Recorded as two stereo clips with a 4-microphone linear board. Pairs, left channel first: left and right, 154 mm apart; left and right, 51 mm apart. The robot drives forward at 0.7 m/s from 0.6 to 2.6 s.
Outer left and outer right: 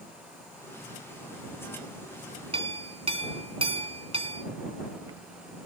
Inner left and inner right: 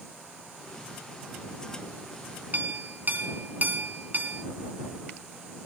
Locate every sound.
2.5 s a clink: 40° right (ahead or behind), 1.4 m